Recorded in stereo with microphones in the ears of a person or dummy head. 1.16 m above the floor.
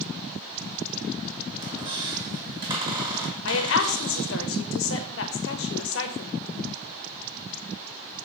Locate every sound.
1.6 s a squeak: 25° right (ahead or behind), 1.4 m
3.5 s a woman speaking: 65° left (ahead or behind), 0.9 m